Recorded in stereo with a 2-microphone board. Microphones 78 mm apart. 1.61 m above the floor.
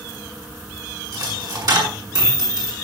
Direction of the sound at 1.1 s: 55° right (ahead or behind).